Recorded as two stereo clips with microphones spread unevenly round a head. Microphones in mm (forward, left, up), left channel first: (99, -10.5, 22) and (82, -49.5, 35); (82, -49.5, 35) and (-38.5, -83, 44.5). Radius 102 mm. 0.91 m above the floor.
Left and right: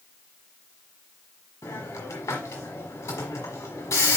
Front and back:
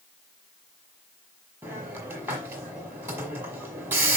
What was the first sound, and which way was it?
A hiss, 120° left.